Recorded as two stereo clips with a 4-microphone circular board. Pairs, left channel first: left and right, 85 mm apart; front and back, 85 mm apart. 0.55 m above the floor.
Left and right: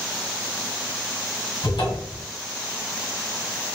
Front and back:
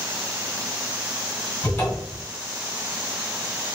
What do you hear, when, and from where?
1.6 s a cupboard door: 70° left, 1.4 m